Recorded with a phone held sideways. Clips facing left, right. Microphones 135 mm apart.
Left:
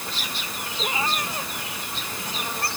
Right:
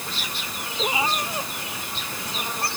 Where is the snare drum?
No snare drum in this recording.